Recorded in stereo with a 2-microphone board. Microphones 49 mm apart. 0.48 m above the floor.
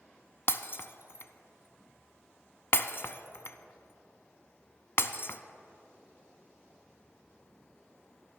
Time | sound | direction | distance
0.5 | breaking glass | 60° left (ahead or behind) | 0.5 m